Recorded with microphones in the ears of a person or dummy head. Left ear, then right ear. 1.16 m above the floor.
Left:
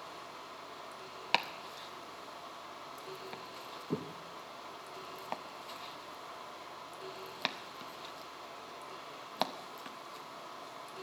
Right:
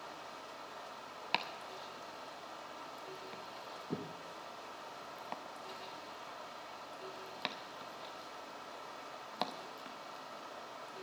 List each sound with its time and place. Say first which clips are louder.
0.0 s running water: left 1 dB; 35° right (ahead or behind), 2.5 m
1.3 s chopping: left 5 dB; 5° left (ahead or behind), 0.7 m